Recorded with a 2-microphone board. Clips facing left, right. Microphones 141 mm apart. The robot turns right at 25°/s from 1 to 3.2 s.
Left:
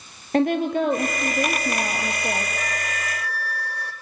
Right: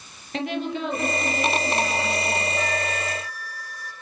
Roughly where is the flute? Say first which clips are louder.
Right 4 dB; left.